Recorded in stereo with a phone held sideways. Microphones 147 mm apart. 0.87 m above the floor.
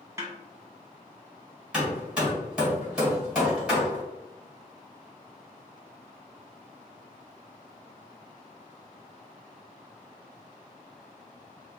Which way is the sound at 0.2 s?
20° right (ahead or behind).